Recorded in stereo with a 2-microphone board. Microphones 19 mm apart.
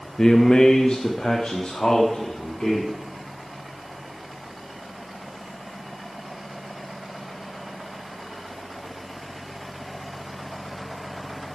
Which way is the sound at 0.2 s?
25° left (ahead or behind).